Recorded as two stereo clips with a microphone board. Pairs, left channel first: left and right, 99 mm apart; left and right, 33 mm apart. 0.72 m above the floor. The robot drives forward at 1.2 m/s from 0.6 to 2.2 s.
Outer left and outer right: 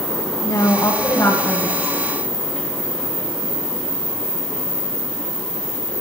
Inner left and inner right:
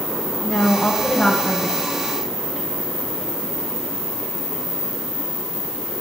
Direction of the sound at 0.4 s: 40° left (ahead or behind).